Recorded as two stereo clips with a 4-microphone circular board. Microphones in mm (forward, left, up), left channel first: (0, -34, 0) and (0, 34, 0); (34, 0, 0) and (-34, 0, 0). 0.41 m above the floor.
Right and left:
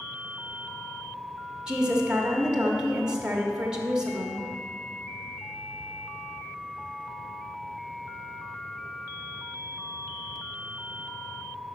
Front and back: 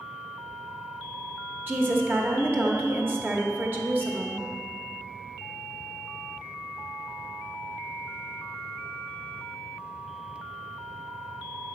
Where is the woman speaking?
150° left, 0.9 m.